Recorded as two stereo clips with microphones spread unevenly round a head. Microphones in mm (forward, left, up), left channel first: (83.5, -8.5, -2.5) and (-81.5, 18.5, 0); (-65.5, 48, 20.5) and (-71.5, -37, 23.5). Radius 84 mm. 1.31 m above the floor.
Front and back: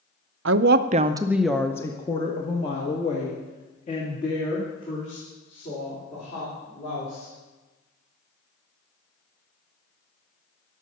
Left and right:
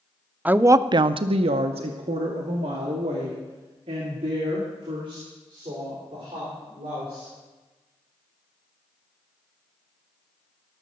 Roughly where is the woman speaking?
Behind.